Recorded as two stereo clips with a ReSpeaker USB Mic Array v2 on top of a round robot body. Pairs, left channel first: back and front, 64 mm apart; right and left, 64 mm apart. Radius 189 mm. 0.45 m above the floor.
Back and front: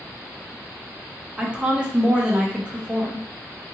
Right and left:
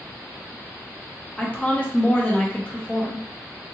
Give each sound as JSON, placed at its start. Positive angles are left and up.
{"t": 1.4, "sound": "a woman speaking", "azimuth_deg": -50, "distance_m": 1.1}